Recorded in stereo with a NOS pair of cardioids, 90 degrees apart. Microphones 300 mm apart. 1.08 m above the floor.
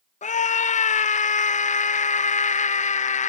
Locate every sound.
0.2 s a scream: 25° left